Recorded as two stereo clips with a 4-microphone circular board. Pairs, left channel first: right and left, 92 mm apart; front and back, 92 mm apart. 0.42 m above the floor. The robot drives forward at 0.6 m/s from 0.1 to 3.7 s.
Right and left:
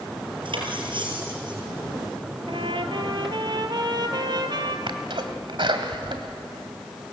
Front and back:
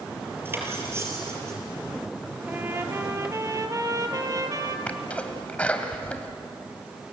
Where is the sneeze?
75° left, 1.9 m.